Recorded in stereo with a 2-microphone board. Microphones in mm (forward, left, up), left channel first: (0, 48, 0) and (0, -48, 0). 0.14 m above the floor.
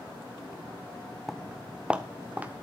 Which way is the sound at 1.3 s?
Centre (ahead or behind).